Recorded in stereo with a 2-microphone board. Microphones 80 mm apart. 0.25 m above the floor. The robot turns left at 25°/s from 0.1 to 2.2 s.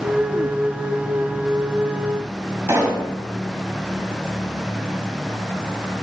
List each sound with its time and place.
2.7 s a pop: 25° right (ahead or behind), 1.9 m